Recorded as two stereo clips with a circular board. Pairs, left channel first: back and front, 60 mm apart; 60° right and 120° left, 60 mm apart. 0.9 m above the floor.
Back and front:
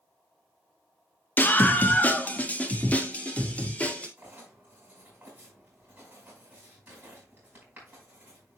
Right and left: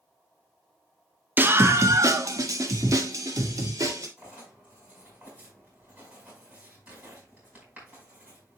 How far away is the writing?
About 5 m.